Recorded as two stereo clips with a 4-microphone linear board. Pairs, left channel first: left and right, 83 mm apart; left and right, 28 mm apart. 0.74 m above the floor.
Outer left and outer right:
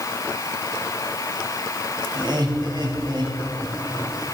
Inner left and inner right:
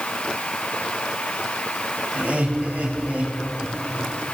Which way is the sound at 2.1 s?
60° right (ahead or behind).